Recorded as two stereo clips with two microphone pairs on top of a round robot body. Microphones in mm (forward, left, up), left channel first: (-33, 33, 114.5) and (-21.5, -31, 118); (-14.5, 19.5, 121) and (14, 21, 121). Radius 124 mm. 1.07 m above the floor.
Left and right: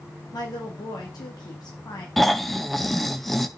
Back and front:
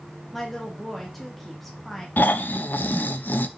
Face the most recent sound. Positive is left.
turn(degrees=-170)